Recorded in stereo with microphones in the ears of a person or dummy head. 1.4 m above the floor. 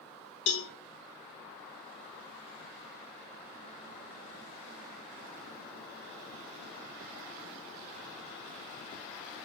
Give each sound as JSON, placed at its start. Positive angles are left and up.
{"t": 0.5, "sound": "a cowbell", "side_deg": 65, "distance_m": 0.7}